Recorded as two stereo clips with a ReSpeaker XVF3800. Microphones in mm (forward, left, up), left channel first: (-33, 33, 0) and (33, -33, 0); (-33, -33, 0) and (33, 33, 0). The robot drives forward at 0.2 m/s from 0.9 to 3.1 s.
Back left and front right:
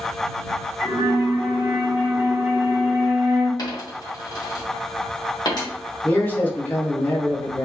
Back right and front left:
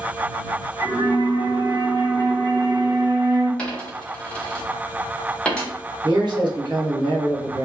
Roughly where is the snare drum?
No snare drum in this recording.